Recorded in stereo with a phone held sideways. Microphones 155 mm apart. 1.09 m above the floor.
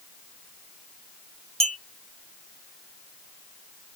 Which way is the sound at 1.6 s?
40° right (ahead or behind).